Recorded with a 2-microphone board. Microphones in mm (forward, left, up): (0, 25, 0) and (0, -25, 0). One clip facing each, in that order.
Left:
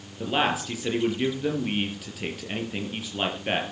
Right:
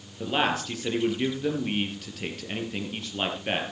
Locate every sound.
0.2 s a man speaking: 5° left (ahead or behind), 4 m